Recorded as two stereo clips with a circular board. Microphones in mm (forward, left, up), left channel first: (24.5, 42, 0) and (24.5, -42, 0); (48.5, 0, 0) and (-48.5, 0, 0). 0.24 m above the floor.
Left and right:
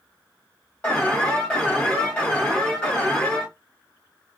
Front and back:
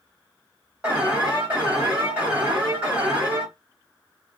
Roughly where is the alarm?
Behind left.